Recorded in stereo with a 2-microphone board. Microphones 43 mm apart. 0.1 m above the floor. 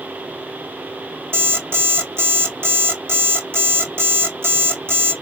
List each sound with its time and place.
1.3 s an alarm clock: 65° right (ahead or behind), 1.5 m